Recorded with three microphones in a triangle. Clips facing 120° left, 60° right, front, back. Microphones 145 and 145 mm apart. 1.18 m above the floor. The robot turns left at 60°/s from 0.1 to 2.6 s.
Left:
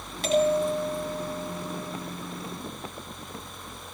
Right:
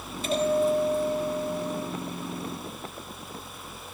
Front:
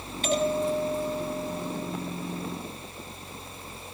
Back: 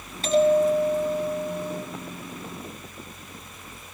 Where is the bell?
125° left, 9 m; by 1.8 s 30° left, 9 m.